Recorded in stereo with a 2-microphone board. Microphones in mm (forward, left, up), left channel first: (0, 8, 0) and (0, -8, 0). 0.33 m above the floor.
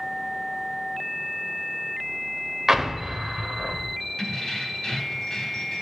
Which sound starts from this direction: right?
An explosion, at 2.7 s.